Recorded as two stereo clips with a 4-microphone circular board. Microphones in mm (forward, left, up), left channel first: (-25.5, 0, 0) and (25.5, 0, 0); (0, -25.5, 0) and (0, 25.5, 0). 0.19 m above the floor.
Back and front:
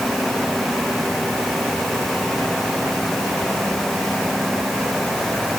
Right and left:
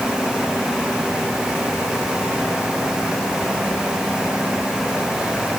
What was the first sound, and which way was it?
Only background noise.